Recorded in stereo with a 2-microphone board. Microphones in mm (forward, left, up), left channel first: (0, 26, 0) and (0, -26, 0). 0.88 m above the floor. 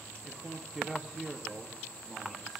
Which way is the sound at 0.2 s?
Centre (ahead or behind).